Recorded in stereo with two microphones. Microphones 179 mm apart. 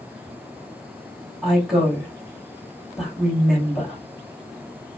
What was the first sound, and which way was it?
A woman speaking, 5° right (ahead or behind).